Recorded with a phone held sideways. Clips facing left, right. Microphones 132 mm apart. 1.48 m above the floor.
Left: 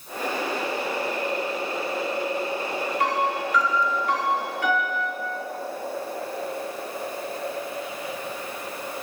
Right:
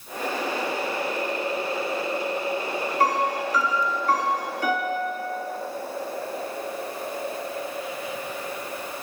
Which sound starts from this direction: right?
A piano, at 3.0 s.